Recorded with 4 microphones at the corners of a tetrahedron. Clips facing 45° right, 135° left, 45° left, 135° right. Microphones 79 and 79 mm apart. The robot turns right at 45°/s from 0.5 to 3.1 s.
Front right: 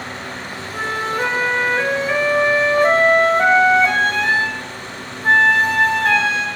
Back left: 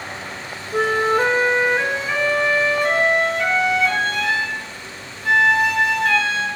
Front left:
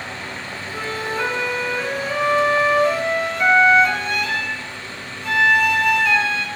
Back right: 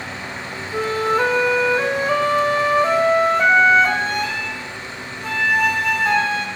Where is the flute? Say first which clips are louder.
Back left 5 dB, back right 7 dB; 170° left, 0.9 m; by 6.5 s 85° right, 0.9 m.